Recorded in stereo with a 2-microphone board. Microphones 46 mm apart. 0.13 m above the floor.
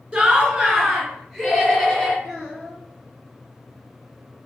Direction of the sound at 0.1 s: 15° right (ahead or behind).